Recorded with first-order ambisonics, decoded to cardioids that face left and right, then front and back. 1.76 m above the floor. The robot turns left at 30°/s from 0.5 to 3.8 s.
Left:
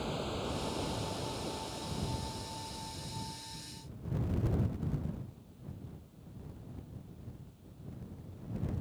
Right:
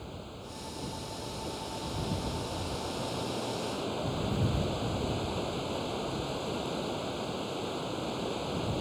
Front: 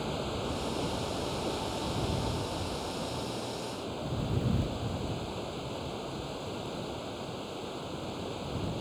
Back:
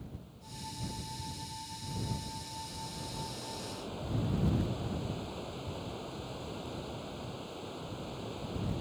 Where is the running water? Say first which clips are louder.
Left 7 dB, front 19 dB; 25° left; by 8.8 s 75° right.